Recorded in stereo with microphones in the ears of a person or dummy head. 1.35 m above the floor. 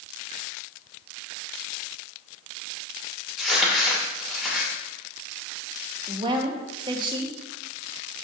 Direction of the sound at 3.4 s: Centre (ahead or behind).